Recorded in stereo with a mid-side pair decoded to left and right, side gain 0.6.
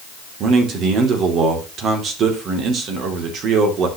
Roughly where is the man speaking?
Ahead right.